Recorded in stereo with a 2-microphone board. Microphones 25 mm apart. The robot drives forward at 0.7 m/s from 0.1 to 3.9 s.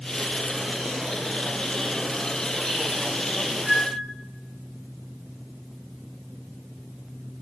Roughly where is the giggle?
I don't hear a giggle.